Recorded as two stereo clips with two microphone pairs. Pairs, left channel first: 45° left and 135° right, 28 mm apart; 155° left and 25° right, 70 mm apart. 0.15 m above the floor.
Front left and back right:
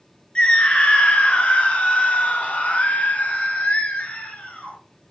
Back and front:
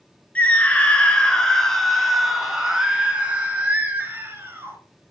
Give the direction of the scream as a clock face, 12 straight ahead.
9 o'clock.